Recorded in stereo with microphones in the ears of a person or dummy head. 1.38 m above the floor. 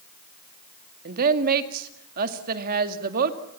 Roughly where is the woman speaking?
Right.